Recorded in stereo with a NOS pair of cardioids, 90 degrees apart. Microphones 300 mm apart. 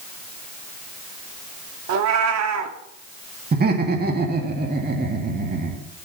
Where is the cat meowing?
65° right, 1.7 m.